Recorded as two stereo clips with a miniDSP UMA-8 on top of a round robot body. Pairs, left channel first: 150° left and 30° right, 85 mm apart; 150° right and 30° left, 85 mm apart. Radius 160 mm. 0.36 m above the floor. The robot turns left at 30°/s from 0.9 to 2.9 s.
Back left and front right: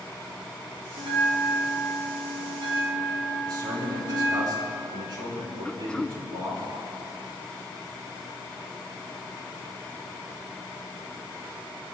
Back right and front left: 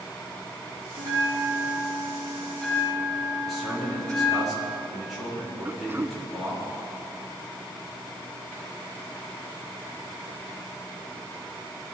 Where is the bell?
15° right, 1.7 m; by 4.5 s 75° right, 1.7 m.